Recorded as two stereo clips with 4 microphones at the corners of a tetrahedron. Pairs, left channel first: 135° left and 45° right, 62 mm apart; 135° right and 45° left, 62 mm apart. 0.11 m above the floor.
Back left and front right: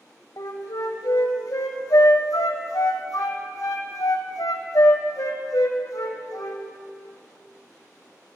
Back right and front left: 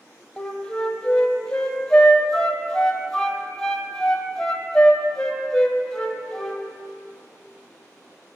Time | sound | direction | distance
0.4 | a flute | 145° left | 0.9 m